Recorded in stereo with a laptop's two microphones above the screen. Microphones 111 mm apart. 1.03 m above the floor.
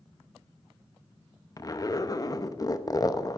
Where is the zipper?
30° left (ahead or behind), 0.6 m.